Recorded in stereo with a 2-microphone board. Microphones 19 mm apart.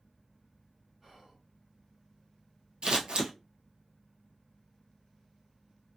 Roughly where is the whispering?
Centre.